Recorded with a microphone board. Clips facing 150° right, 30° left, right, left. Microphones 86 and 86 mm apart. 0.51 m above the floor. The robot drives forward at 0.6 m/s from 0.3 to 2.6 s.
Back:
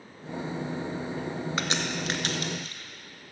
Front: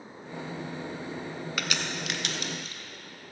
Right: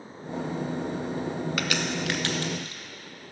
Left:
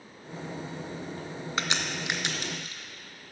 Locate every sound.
1.6 s a crack: 150° left, 0.7 m; by 2.8 s 165° left, 1.3 m